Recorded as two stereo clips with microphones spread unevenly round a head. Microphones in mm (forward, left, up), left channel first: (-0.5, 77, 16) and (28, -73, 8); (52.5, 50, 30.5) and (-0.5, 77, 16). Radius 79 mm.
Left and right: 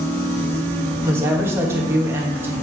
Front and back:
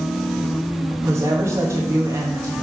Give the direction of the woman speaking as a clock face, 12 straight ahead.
5 o'clock.